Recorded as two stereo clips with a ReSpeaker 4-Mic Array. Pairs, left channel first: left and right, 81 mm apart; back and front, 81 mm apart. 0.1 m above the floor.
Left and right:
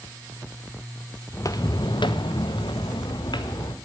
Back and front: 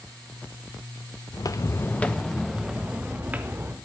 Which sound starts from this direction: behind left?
Footsteps, at 1.3 s.